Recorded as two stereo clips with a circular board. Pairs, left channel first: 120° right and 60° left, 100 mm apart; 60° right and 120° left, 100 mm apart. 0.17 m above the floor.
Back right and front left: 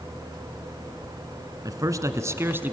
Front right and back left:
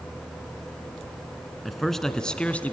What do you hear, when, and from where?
1.6 s a man speaking: 30° left, 1.5 m; by 2.7 s 5° left, 1.3 m